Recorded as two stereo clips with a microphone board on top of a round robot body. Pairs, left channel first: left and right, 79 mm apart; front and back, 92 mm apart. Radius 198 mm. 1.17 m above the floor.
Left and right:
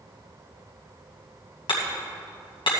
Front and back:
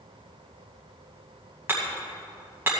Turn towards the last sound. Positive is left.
turn(degrees=110)